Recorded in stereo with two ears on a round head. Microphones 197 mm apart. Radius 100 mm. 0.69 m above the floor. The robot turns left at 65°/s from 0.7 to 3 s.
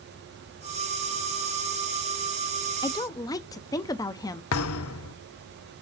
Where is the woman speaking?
20° left (ahead or behind), 0.5 m; by 4.4 s 15° left (ahead or behind), 0.5 m.